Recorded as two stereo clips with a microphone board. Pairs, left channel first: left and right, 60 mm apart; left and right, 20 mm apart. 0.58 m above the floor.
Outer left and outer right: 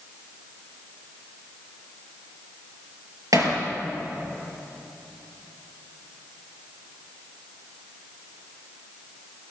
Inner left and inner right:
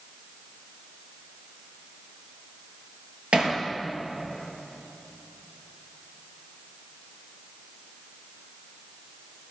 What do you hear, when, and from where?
3.3 s hammering: 75° right (ahead or behind), 5 m